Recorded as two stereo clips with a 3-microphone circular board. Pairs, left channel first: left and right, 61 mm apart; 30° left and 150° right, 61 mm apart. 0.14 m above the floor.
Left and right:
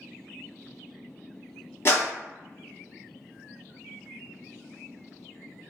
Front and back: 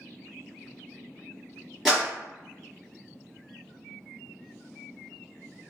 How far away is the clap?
About 1.9 m.